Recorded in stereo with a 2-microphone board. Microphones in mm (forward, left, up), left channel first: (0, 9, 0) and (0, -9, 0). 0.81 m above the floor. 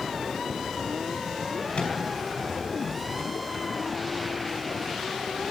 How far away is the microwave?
About 5 m.